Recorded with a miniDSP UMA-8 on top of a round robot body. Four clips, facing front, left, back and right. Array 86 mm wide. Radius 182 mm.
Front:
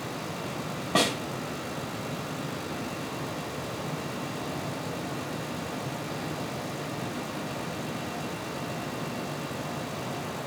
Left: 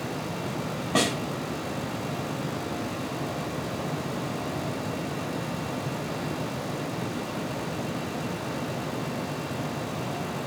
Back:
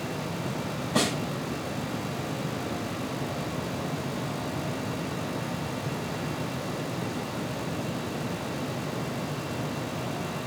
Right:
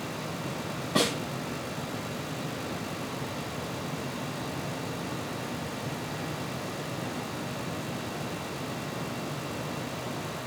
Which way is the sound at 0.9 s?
45° left.